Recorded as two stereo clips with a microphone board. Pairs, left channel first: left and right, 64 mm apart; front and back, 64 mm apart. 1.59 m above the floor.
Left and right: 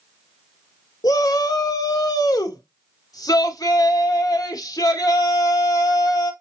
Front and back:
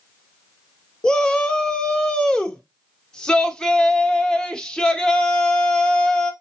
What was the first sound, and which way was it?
A shout, 80° left.